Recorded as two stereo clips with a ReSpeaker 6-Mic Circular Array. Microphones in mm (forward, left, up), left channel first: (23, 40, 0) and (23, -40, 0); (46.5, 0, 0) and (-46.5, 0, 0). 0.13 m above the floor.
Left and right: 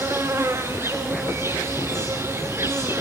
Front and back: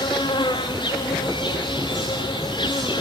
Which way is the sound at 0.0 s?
30° right.